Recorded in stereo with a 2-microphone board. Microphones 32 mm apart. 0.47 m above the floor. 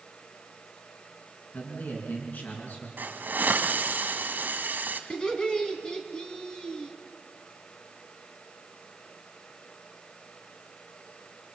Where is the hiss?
65° right (ahead or behind), 2 m.